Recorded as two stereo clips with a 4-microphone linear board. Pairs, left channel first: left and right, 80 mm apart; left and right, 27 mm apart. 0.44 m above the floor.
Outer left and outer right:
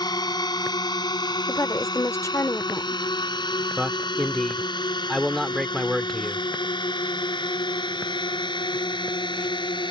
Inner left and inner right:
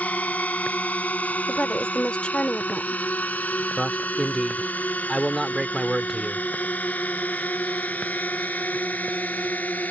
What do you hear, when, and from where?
0.0 s a drone: 60° left (ahead or behind); by 9.9 s 80° left
1.5 s a woman speaking: 40° left (ahead or behind)
3.8 s a man speaking: 5° left (ahead or behind)